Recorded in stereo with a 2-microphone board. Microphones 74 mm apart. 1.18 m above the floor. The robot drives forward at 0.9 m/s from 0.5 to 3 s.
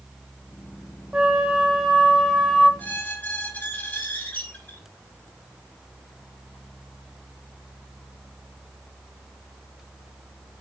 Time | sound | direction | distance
1.1 | a flute | 15° right (ahead or behind) | 0.7 m
2.8 | a squeak | 25° left (ahead or behind) | 1.5 m